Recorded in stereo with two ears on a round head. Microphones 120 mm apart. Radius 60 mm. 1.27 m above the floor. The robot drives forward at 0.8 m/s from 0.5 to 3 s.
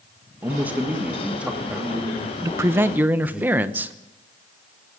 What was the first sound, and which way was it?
A man speaking, 15° right (ahead or behind).